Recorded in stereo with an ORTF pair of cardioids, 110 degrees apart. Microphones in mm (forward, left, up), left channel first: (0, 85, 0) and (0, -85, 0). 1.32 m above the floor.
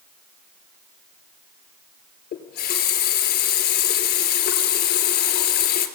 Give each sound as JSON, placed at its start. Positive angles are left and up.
{"t": 2.3, "sound": "a running tap", "azimuth_deg": 70, "distance_m": 3.0}